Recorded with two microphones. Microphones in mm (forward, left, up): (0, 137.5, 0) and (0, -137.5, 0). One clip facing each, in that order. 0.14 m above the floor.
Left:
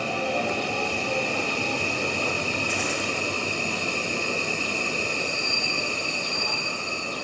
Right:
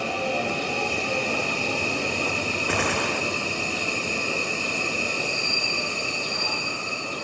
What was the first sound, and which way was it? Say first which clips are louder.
A gunshot: right 3 dB; 60° right (ahead or behind).